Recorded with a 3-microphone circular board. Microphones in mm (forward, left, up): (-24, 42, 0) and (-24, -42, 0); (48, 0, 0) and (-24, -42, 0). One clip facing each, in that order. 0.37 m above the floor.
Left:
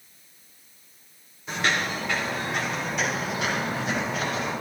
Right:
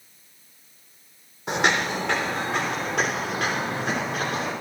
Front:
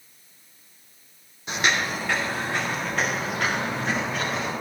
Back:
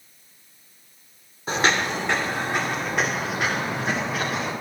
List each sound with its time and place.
1.5 s footsteps: 100° right, 1.1 m; by 4.5 s 70° right, 4.5 m